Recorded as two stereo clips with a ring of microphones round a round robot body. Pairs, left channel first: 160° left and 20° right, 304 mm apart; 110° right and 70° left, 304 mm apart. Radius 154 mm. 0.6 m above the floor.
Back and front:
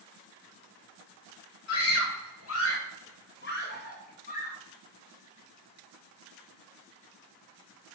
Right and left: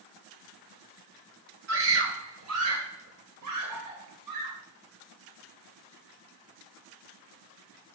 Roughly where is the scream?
Behind left.